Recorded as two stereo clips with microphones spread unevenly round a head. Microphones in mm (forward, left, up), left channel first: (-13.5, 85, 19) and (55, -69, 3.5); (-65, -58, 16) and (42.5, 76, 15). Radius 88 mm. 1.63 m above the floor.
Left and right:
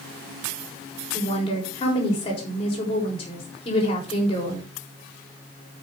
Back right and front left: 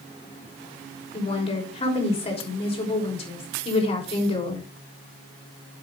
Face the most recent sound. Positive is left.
turn(degrees=175)